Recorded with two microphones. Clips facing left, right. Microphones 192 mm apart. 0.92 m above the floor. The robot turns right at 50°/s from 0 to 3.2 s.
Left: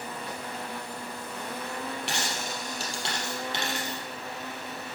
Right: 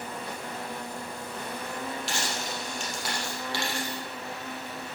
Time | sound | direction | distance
2.1 | a dropped coin | 100° left | 3.5 m